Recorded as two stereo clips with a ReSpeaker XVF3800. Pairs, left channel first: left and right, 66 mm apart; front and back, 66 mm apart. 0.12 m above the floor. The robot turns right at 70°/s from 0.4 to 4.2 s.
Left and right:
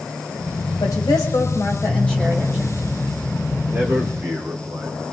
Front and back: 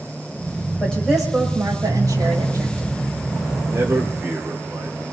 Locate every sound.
0.8 s a woman speaking: 75° left, 7 m; by 2.9 s 140° right, 7 m
3.7 s a man speaking: 145° right, 4.5 m; by 5.0 s 110° right, 4.5 m